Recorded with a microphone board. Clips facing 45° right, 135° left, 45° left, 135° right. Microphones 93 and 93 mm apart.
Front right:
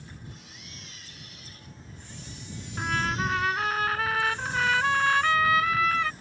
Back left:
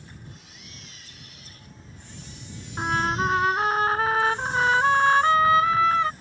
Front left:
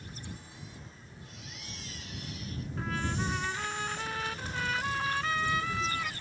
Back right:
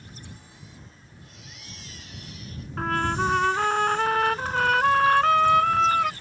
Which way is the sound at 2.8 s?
165° right.